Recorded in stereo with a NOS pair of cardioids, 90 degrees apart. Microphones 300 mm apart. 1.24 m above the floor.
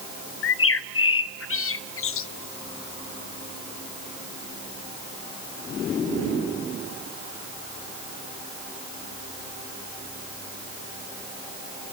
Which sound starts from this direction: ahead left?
A bird, at 0.4 s.